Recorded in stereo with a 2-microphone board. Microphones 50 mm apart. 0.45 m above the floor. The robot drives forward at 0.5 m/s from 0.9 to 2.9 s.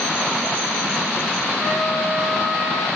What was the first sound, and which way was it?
A trumpet, 10° right (ahead or behind).